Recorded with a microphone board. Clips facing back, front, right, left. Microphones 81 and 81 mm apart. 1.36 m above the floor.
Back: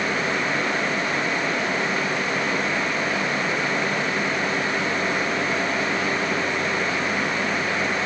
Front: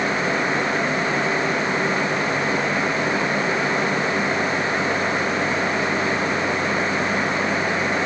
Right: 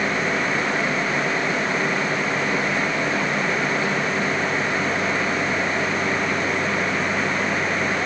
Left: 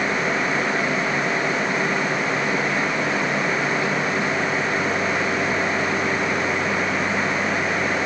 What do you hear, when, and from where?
Only background noise.